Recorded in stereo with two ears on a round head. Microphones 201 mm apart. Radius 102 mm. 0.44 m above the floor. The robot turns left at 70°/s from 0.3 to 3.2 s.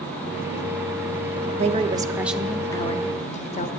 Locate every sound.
1.6 s a woman speaking: 125° right, 1.0 m; by 3.7 s 125° left, 1.0 m